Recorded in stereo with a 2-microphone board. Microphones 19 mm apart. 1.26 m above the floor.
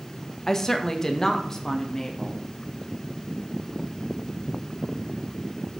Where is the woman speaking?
20° left (ahead or behind), 1.4 m; by 2.4 s 25° left (ahead or behind), 2.5 m.